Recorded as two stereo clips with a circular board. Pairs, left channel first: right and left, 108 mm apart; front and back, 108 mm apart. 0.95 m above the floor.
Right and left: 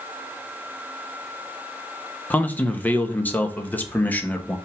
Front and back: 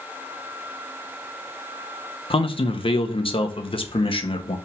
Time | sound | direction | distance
2.3 | a man speaking | 20° right | 1.1 m